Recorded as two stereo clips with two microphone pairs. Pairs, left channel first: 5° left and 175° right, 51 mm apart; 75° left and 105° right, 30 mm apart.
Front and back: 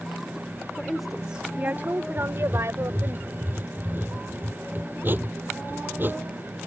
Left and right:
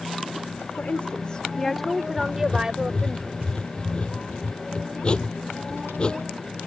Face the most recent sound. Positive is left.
turn(degrees=135)